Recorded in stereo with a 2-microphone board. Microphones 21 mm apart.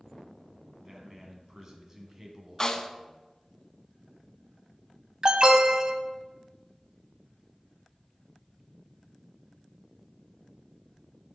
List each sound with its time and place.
0.8 s a man speaking: 20° right (ahead or behind), 2.0 m
2.6 s a snare drum: 35° left (ahead or behind), 0.8 m
5.2 s an alarm: 40° right (ahead or behind), 1.0 m